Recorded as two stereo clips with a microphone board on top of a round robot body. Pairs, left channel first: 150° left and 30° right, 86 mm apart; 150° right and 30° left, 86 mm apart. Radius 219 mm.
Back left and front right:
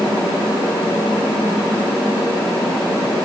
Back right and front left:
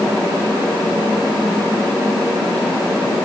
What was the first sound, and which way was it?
Only background noise.